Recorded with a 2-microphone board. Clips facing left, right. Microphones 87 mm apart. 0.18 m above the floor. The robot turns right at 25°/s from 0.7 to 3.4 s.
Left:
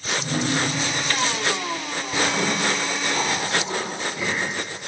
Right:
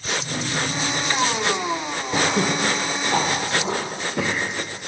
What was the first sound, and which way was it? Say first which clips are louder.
A drawer: left 7 dB; 50° left (ahead or behind).